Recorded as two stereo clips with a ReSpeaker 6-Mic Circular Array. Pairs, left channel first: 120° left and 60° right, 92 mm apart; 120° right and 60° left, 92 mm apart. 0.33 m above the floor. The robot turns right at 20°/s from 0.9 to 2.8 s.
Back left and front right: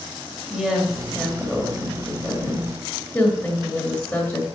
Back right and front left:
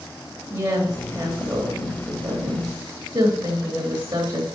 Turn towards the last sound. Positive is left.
turn(degrees=50)